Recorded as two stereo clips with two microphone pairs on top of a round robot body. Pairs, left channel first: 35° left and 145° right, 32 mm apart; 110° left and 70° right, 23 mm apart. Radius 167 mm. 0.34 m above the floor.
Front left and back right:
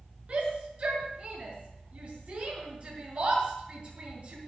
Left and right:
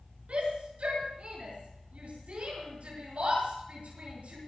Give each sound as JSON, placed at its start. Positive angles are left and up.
{"t": 0.3, "sound": "a shout", "azimuth_deg": -95, "distance_m": 7.0}